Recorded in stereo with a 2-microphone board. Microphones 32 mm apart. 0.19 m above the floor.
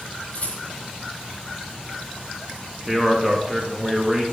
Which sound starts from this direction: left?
A rattle, at 0.3 s.